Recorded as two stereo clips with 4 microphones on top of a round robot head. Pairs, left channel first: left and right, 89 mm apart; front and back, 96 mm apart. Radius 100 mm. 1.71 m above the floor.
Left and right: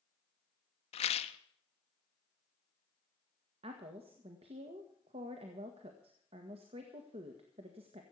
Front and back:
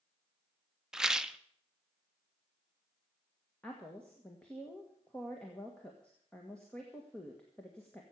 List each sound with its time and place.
0.9 s a rattle: 95° left, 0.7 m
3.6 s a woman speaking: 80° right, 1.5 m